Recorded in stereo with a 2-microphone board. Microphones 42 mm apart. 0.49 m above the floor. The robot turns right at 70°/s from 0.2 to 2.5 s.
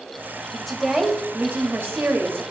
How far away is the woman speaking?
About 2.5 m.